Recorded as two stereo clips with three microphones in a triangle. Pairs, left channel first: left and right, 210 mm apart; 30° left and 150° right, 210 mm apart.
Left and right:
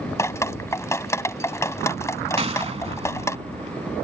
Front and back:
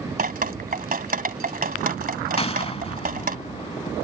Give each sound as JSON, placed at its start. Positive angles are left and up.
{"t": 0.2, "sound": "dripping", "azimuth_deg": 165}
{"t": 2.4, "sound": "a gunshot", "azimuth_deg": -35}